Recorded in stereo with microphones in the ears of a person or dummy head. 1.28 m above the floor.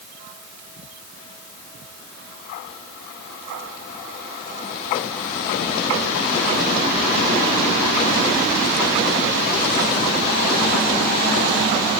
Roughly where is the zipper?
I don't hear a zipper.